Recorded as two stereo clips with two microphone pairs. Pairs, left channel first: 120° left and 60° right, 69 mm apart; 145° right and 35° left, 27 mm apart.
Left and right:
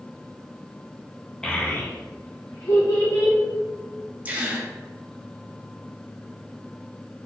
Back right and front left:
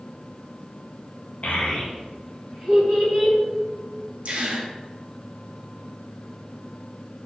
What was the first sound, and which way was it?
A child speaking, 160° right.